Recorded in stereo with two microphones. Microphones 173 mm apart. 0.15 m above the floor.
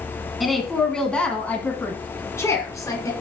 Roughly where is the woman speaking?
Centre.